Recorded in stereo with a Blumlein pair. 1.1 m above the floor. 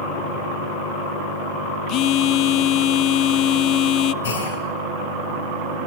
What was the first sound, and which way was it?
A phone buzzing, 35° left.